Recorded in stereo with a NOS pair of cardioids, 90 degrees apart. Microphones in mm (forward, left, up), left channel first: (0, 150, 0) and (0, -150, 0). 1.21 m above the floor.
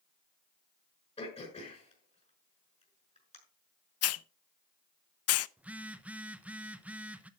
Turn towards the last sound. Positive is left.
turn(degrees=-5)